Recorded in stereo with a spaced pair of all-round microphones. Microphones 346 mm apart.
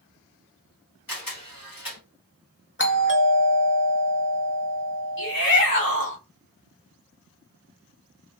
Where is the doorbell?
35° left (ahead or behind), 0.8 m.